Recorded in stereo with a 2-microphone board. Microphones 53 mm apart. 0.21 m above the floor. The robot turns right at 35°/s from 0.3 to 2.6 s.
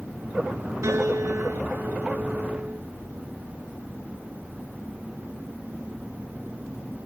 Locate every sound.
0.8 s a piano: 100° right, 3 m; by 2.8 s 40° right, 3 m